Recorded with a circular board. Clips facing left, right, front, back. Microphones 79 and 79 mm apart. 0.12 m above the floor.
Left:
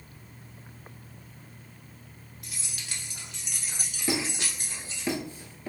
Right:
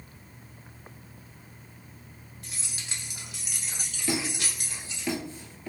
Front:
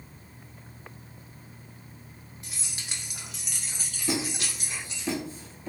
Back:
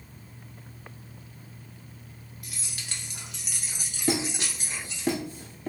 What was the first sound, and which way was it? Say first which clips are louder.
Keys jangling: even, even; 50° right.